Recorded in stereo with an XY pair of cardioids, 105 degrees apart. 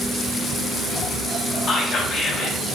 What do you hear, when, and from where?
1.7 s whispering: 45° left, 0.7 m